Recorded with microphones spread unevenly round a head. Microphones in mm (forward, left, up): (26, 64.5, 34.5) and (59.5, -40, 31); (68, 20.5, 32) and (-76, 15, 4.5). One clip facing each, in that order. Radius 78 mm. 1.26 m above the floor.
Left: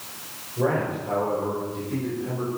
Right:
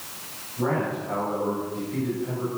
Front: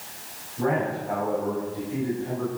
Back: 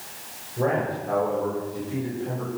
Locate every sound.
0.6 s a man speaking: 150° left, 7 m; by 2.5 s 125° left, 7 m